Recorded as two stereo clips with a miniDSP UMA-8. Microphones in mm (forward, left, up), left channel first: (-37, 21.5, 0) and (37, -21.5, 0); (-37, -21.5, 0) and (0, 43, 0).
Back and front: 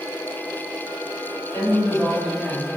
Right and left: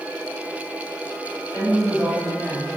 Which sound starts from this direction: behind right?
A woman speaking, at 1.5 s.